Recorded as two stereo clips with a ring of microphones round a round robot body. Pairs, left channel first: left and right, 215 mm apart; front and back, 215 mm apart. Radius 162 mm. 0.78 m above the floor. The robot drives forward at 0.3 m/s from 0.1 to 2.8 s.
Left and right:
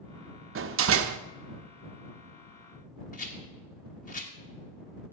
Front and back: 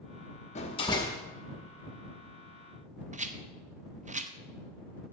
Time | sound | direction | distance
0.6 | a door slam | 65° right | 0.7 m
3.1 | a rattle | 135° left | 1.1 m